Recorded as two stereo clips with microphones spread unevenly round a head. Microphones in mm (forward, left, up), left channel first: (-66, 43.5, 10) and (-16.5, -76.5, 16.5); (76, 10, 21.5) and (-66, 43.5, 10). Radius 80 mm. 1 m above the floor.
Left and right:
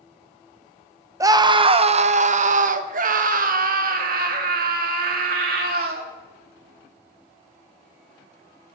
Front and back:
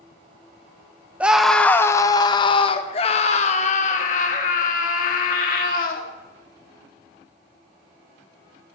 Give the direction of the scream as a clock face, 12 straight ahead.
4 o'clock.